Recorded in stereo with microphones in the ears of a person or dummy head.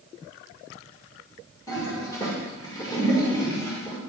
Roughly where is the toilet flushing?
Left.